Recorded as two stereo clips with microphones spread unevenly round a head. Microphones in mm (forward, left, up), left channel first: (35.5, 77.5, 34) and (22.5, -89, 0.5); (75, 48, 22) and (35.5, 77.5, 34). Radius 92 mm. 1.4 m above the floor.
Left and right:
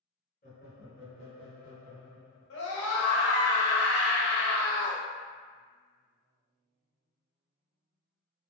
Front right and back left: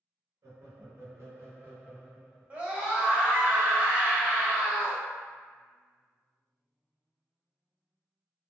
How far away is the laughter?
About 1.1 m.